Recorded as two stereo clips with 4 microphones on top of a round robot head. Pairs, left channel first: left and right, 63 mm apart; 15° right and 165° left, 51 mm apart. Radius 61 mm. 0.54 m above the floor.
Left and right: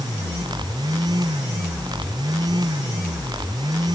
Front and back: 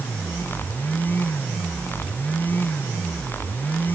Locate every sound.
Only background noise.